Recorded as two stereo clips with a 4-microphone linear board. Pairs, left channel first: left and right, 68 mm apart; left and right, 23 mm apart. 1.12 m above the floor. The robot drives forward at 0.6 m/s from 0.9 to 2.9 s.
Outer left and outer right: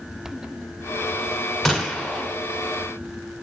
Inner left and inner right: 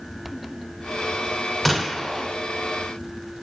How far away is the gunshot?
About 2.5 m.